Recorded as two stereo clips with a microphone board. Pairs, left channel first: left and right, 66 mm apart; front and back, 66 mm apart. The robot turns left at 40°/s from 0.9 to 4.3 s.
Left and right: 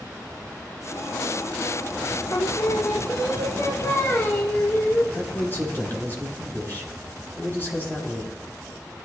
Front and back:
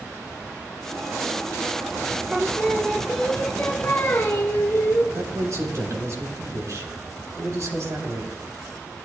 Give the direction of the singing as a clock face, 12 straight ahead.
8 o'clock.